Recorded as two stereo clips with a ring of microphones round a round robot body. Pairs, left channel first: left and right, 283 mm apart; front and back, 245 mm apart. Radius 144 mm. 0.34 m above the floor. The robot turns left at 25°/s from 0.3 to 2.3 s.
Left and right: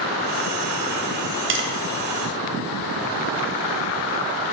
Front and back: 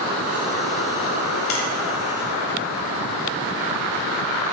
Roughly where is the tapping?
Ahead right.